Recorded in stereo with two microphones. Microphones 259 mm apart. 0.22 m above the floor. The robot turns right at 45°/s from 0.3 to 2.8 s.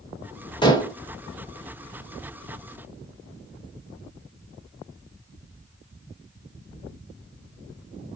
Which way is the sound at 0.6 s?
15° left (ahead or behind).